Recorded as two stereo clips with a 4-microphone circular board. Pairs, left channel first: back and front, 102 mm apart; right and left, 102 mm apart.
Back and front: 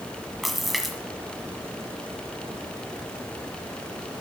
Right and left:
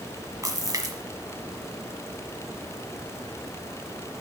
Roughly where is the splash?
Left.